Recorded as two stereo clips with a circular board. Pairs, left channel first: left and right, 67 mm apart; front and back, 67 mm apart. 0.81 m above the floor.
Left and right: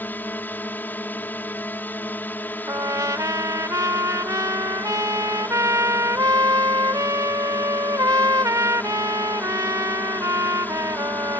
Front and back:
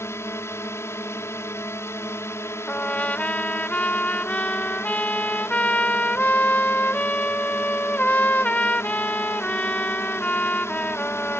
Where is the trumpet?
65° right.